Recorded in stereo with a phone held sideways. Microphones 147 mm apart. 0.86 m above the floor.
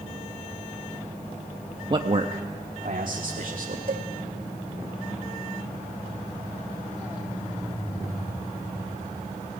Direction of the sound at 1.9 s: 30° right (ahead or behind).